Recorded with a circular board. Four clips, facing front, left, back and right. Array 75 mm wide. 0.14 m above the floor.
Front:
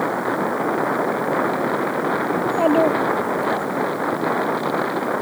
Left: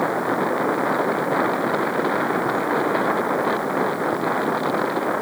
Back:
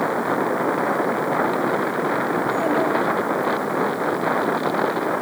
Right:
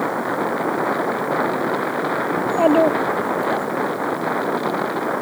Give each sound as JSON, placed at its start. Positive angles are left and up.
{"t": 2.4, "sound": "a child speaking", "azimuth_deg": -70}